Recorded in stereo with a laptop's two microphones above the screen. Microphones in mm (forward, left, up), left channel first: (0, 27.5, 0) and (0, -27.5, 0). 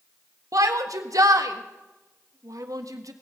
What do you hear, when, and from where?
0.5 s a shout: 80° right, 1.4 m